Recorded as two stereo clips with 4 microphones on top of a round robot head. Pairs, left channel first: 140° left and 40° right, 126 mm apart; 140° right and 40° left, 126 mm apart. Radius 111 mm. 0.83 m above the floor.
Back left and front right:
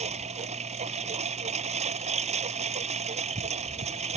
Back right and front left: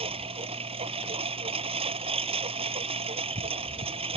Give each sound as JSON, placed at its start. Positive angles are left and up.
{"t": 0.0, "sound": "a lawn mower", "azimuth_deg": -5}